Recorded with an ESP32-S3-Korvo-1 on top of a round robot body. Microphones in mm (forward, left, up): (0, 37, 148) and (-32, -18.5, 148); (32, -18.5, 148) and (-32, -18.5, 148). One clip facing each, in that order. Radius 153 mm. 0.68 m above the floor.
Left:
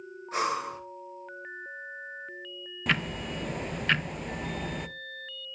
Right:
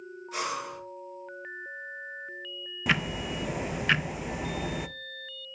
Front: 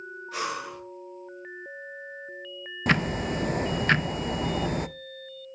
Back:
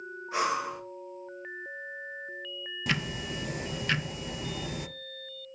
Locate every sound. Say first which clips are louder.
0.3 s breathing: left 4 dB, back 4 dB; 115° left, 1.6 m
2.9 s ticking: right 1 dB, front 8 dB; 35° right, 0.5 m